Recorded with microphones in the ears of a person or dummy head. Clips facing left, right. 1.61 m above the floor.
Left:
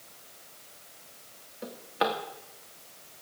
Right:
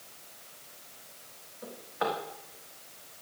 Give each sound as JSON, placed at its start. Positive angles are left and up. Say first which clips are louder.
{"t": 1.6, "sound": "a drawer", "louder": "left 3 dB", "side_deg": 45, "distance_m": 1.3}